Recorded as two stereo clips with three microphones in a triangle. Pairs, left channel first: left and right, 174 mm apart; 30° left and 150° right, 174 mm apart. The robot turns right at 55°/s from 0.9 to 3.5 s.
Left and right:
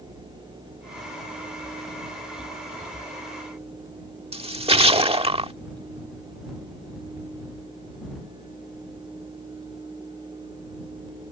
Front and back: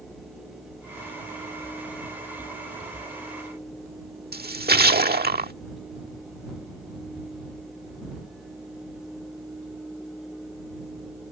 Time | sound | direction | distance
4.3 | a splash | 145° right | ?